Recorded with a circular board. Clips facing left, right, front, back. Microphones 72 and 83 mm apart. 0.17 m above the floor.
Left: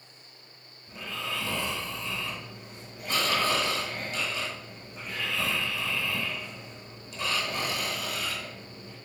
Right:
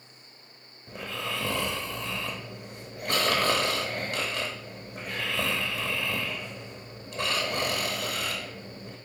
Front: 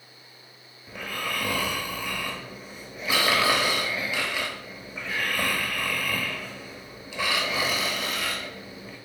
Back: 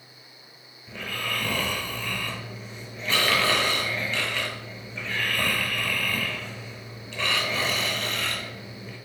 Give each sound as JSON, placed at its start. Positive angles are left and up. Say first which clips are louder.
{"t": 0.9, "sound": "snoring", "louder": "right 2 dB, even", "azimuth_deg": -80, "distance_m": 0.7}